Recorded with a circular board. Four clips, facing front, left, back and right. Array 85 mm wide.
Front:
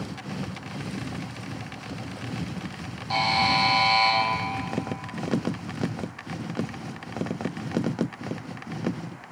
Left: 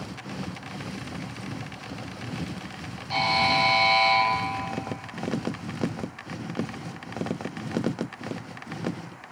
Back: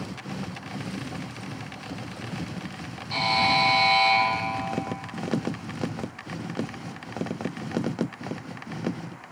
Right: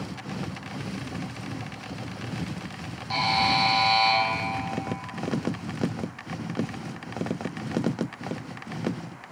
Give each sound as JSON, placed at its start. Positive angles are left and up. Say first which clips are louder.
{"t": 3.1, "sound": "a buzzer", "louder": "even, even", "azimuth_deg": -20, "distance_m": 2.5}